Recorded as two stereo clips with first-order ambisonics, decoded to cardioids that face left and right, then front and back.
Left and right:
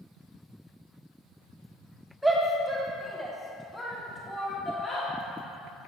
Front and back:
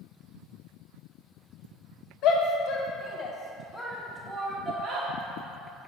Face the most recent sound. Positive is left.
turn(degrees=160)